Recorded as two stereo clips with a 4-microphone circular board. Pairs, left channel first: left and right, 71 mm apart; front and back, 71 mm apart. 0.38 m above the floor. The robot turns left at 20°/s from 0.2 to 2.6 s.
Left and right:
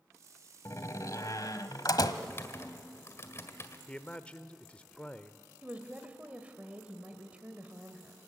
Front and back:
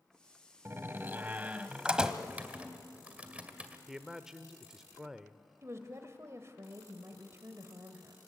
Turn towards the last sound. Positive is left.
turn(degrees=-155)